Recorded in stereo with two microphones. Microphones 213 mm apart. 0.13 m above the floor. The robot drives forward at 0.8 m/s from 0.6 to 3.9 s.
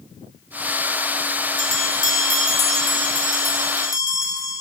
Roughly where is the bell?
Right.